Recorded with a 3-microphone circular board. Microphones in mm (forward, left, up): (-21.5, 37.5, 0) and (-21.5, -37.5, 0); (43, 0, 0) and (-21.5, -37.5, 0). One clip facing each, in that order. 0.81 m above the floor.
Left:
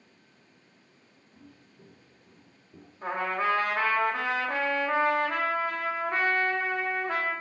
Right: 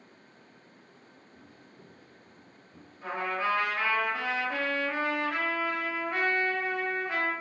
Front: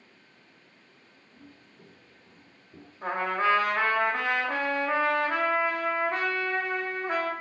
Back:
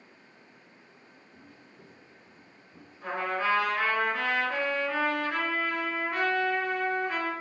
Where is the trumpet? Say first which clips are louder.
Left 2 dB, front 3 dB; 60° left, 0.8 m.